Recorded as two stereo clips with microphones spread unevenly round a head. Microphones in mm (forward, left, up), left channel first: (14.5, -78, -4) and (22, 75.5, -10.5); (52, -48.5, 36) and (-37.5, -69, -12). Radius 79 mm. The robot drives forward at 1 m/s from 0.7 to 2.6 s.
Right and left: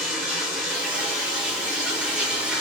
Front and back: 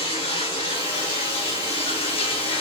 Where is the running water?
Straight ahead, 4.5 m; by 2.6 s 5° left, 2.5 m.